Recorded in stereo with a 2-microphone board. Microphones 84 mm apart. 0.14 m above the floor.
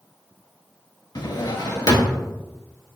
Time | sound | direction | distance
1.1 | a drawer | 50° left (ahead or behind) | 0.6 m